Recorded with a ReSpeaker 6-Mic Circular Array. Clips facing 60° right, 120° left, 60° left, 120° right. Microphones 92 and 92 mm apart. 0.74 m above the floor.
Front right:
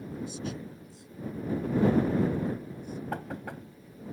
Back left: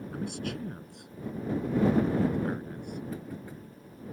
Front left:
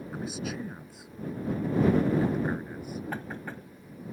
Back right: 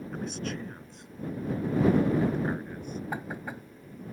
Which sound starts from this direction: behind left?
A man speaking, at 0.1 s.